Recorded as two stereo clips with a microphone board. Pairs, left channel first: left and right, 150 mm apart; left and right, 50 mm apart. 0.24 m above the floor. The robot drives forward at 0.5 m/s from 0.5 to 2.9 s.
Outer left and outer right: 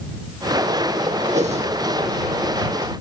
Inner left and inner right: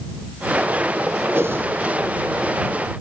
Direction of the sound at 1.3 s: 50° right (ahead or behind).